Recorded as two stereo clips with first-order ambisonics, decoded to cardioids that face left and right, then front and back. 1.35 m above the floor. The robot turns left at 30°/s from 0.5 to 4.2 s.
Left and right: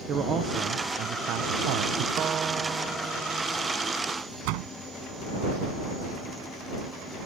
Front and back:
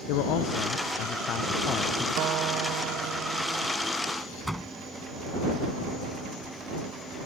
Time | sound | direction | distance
0.1 | a man speaking | 25° right | ?
2.2 | a guitar | 145° right | ?
4.4 | a door slam | 90° right | ?